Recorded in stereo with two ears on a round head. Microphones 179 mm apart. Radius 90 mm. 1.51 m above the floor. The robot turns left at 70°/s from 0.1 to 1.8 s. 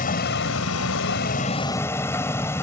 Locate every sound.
0.0 s a vehicle: 130° left; by 2.6 s 15° left